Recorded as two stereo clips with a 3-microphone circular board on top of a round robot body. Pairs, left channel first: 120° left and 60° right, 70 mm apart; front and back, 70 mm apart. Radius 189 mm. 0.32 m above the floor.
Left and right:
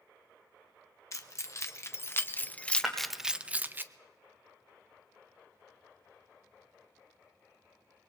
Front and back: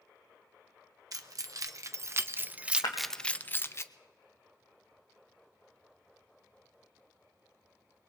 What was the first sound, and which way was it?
Keys jangling, 155° left.